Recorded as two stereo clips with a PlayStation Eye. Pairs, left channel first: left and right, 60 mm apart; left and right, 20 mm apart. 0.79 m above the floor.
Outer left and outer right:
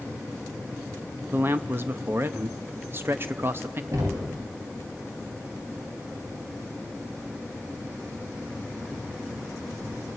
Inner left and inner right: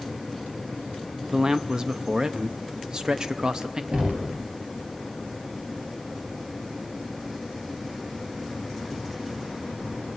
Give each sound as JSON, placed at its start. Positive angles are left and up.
{"t": 1.3, "sound": "a man speaking", "side_deg": -35, "distance_m": 0.6}
{"t": 3.9, "sound": "knocking", "side_deg": -65, "distance_m": 3.0}